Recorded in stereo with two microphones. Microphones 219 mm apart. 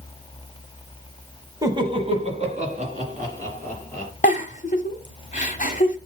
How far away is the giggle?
About 1.1 m.